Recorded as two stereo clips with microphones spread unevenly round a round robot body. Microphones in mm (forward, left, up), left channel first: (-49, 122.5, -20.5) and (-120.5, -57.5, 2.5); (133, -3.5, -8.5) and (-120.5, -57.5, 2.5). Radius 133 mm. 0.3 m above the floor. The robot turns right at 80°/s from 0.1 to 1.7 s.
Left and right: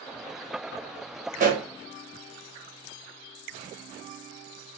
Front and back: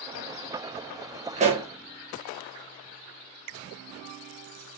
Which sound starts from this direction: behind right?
A pop, at 1.4 s.